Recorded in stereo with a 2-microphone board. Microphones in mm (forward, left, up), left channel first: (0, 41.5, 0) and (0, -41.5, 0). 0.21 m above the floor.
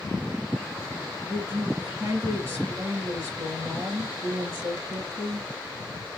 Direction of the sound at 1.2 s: 35° right (ahead or behind).